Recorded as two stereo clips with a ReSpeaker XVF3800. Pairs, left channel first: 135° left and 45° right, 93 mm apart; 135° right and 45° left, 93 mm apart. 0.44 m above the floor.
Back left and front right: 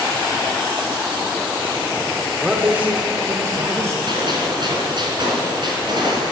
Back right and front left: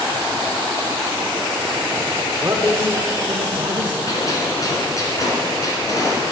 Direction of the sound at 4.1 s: 80° right.